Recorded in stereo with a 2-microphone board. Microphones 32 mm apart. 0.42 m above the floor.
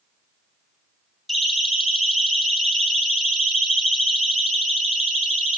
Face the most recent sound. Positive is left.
turn(degrees=-5)  # may be behind; listen again after turning